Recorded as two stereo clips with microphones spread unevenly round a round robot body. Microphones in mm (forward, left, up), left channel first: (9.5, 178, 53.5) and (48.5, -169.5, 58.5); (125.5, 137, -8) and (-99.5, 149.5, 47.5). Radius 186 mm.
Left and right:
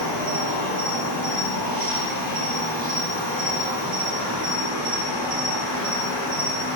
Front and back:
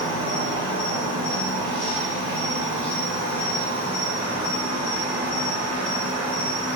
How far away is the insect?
About 1.0 m.